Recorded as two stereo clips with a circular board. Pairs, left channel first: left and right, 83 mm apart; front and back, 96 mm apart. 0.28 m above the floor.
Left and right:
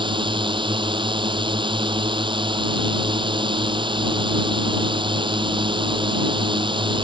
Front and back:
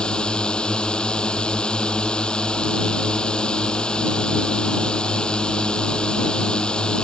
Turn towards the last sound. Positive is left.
turn(degrees=-80)